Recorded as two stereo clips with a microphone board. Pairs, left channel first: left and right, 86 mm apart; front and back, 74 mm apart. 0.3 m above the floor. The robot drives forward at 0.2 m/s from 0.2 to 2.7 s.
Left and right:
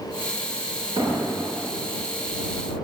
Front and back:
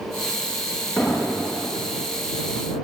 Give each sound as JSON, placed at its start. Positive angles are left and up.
{"t": 1.0, "sound": "an explosion", "azimuth_deg": -95, "distance_m": 9.0}